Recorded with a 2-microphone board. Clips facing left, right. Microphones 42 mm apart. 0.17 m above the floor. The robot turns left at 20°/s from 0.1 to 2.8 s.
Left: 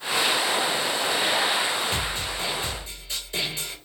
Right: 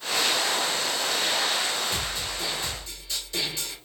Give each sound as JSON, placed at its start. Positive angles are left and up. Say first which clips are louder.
{"t": 1.9, "sound": "a snare drum", "louder": "left 3 dB", "side_deg": 40, "distance_m": 2.5}